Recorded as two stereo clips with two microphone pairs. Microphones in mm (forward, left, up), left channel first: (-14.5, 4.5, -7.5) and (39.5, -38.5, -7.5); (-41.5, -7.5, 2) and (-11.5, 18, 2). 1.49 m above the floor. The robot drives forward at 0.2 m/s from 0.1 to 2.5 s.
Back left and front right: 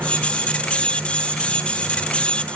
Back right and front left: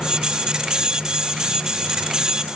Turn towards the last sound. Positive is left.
No sound to turn to.